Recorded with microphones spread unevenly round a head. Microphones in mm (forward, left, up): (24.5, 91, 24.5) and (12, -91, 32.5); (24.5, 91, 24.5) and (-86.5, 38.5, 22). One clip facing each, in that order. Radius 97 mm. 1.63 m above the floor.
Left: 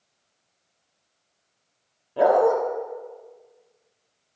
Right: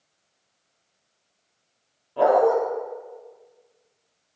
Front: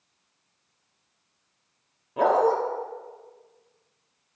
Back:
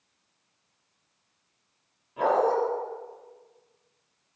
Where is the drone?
I don't hear a drone.